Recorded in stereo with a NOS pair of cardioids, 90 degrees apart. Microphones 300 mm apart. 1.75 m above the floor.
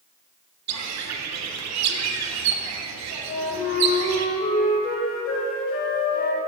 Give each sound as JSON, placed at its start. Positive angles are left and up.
{"t": 0.7, "sound": "a bird", "azimuth_deg": -65, "distance_m": 0.6}
{"t": 3.3, "sound": "a flute", "azimuth_deg": 45, "distance_m": 1.5}